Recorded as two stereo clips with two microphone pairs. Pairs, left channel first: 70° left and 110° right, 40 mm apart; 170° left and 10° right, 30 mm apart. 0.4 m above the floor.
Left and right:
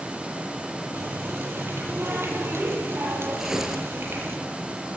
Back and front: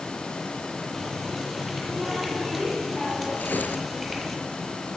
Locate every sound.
0.9 s a running tap: 100° right, 8.5 m
3.4 s tearing paper: 175° left, 5 m